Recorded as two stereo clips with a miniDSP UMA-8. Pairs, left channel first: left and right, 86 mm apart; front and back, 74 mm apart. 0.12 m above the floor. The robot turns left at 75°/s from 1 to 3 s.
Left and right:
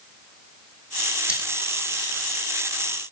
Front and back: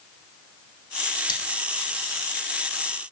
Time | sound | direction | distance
1.3 | cutlery clinking | 10° right | 3 m